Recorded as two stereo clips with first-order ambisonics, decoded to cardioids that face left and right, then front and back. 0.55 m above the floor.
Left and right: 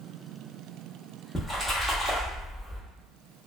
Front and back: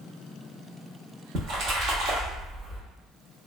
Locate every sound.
1.4 s a splash: 175° left, 0.7 m